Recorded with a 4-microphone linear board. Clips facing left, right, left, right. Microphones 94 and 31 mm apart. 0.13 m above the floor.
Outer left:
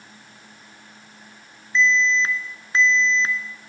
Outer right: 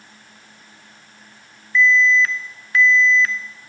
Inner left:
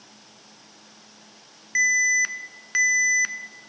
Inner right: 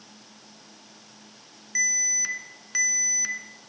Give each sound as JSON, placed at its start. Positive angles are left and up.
{"t": 1.8, "sound": "an alarm", "side_deg": 25, "distance_m": 0.8}